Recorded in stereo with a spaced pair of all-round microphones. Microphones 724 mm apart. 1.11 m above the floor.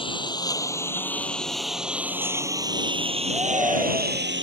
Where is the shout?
45° right (ahead or behind).